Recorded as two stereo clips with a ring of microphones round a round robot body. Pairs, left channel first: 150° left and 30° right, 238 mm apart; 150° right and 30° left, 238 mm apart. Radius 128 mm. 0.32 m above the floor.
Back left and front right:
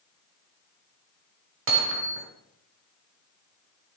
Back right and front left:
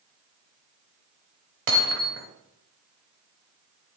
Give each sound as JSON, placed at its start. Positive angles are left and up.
{"t": 1.7, "sound": "hammering", "azimuth_deg": -5, "distance_m": 1.3}